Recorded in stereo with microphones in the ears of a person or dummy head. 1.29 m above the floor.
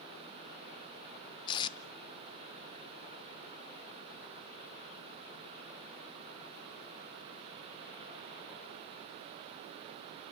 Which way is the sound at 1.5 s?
25° left (ahead or behind).